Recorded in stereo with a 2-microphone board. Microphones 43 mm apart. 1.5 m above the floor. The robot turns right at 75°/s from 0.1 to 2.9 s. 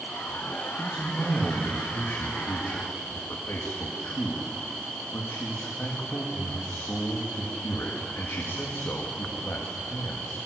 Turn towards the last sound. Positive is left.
turn(degrees=115)